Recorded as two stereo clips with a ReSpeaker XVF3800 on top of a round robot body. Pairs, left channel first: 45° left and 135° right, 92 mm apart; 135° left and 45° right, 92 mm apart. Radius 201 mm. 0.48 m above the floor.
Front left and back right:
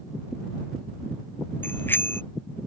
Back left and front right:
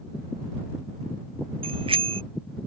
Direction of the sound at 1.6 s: 25° right.